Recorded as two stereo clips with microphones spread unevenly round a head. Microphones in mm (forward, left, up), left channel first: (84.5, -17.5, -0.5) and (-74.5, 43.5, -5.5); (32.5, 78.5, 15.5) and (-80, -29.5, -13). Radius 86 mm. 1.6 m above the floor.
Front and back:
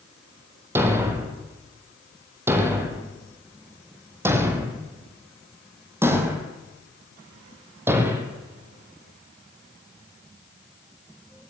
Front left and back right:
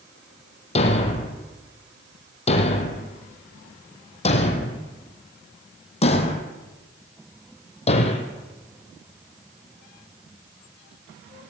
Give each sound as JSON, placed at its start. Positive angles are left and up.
{"t": 0.8, "sound": "a thud", "azimuth_deg": 85, "distance_m": 3.5}